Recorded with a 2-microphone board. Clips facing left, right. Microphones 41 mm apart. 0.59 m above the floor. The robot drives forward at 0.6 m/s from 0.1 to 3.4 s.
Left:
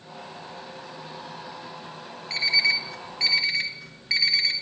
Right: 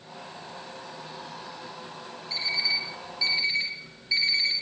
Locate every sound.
2.3 s an alarm clock: 85° left, 1.7 m; by 4.5 s 75° left (ahead or behind), 1.8 m